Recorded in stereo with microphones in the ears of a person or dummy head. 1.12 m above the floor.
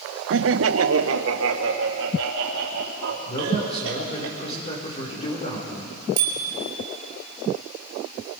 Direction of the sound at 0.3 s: 60° right (ahead or behind).